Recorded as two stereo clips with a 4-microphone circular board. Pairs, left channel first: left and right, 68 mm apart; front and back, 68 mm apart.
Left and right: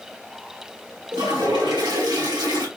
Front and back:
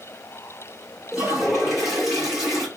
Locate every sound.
1.1 s a toilet flushing: 95° right, 1.4 m